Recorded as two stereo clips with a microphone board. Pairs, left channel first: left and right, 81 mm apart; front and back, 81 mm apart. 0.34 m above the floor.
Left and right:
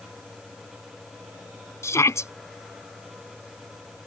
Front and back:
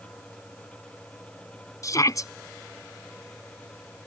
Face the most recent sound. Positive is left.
turn(degrees=40)